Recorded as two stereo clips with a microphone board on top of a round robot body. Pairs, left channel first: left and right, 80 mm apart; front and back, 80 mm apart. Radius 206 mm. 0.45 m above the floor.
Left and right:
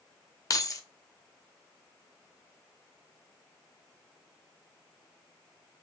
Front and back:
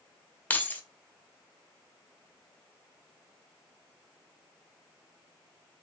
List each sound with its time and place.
0.5 s keys jangling: 60° left, 0.7 m